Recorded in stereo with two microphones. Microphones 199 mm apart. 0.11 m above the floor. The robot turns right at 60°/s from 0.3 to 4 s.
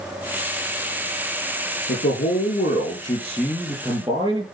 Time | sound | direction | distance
1.9 | a man speaking | 85° left | 3.5 m